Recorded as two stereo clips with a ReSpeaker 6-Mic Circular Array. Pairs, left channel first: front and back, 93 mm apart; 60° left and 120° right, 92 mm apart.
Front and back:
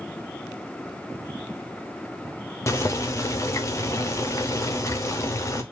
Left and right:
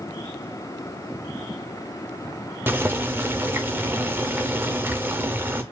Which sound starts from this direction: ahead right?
Boiling, at 2.7 s.